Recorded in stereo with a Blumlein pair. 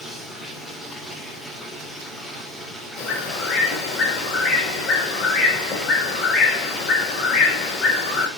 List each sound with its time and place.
0.0 s running water: 5° left, 2.5 m
3.0 s a bird: 30° left, 6 m